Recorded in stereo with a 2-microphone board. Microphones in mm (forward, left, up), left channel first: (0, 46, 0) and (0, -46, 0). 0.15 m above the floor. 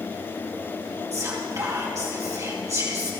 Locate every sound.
1.1 s whispering: 35° right (ahead or behind), 4 m